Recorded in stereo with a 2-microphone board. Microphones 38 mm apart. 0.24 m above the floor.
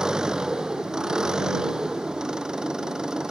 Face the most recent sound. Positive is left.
turn(degrees=-20)  # may be behind; listen again after turning